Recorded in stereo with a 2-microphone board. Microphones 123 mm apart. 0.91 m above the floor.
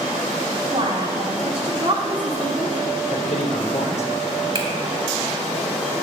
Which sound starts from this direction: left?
A man speaking, at 3.1 s.